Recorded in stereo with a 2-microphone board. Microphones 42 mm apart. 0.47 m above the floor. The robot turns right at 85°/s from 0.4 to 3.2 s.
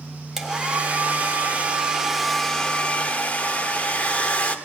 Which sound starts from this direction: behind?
A hair dryer, at 0.4 s.